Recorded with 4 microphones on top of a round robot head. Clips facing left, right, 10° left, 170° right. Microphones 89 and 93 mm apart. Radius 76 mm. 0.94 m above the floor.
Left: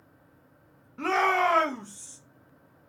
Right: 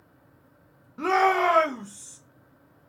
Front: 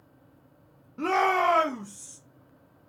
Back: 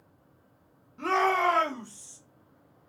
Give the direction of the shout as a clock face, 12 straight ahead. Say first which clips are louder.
Right 3 dB, front 1 dB; 1 o'clock.